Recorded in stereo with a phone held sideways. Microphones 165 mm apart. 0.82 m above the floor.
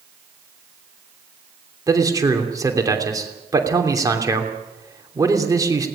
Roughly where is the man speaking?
Right.